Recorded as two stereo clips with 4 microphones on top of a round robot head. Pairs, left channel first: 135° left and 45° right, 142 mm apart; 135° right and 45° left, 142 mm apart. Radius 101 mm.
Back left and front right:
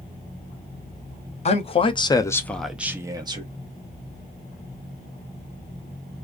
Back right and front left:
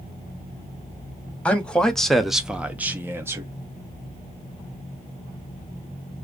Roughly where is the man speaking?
Behind left.